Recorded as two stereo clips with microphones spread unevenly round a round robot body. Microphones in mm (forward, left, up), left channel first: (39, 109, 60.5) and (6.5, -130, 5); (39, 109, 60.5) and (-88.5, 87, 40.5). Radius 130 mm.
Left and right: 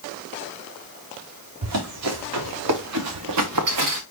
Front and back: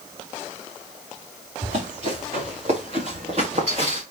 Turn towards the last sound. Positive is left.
turn(degrees=-105)